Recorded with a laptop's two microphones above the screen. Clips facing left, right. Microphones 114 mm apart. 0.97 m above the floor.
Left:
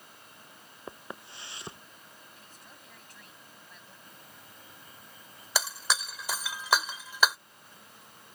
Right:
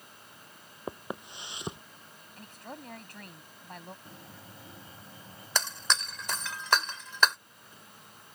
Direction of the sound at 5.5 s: 5° left (ahead or behind).